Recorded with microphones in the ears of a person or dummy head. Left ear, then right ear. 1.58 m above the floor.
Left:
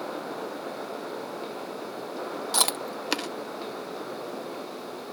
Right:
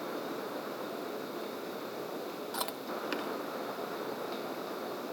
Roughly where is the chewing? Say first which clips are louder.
Left 11 dB; left.